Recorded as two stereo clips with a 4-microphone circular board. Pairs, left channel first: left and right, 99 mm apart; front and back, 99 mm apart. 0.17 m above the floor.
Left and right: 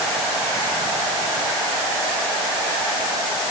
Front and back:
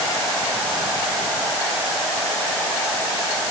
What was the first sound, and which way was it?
Only background noise.